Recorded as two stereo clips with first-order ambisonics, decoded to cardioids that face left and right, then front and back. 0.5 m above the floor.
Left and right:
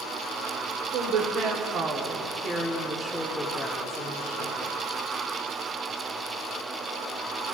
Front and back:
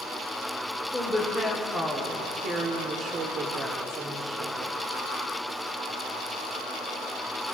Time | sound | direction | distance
0.9 | a woman speaking | 90° right | 1.4 m